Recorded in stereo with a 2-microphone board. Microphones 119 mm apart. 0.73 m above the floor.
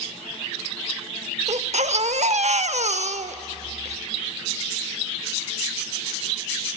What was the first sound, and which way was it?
A baby crying, 70° right (ahead or behind).